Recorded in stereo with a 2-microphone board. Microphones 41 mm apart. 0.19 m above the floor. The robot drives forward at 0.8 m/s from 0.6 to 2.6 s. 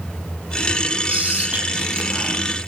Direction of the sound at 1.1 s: 35° right (ahead or behind).